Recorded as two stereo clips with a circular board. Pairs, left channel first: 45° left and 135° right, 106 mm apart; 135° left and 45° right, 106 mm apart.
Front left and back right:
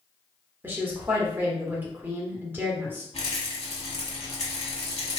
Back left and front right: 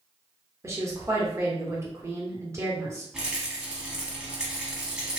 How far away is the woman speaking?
About 0.9 m.